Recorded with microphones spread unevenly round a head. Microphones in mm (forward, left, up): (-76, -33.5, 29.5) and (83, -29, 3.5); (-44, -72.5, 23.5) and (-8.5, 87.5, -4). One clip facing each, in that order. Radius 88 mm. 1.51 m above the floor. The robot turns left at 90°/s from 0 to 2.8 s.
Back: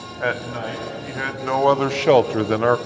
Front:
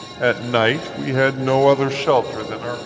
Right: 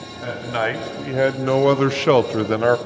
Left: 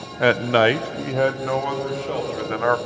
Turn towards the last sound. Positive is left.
turn(degrees=-170)